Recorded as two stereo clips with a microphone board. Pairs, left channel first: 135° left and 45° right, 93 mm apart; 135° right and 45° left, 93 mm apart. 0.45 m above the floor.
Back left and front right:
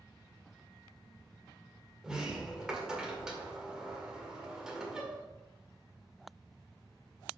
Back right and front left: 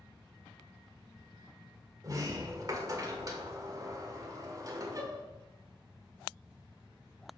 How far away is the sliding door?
About 1.6 m.